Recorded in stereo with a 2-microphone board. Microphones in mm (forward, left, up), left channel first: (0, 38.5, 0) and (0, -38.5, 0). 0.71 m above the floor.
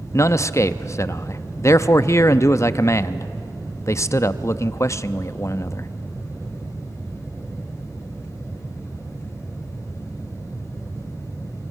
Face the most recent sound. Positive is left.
turn(degrees=40)  # may be behind; listen again after turning